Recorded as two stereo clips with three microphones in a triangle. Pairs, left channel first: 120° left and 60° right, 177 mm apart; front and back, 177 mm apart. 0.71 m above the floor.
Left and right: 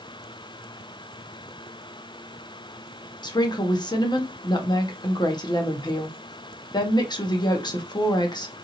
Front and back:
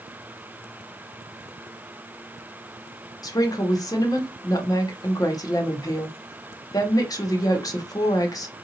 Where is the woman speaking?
60° left, 0.7 m.